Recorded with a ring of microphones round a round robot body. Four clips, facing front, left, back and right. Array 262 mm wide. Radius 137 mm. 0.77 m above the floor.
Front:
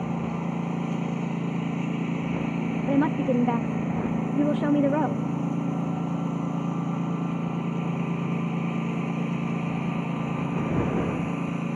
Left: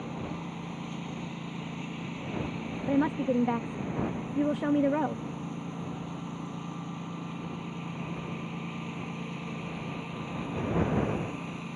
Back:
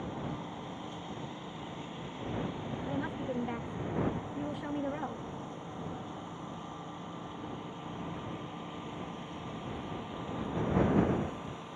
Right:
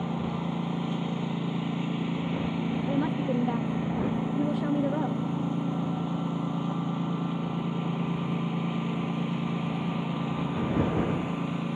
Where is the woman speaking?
15° left.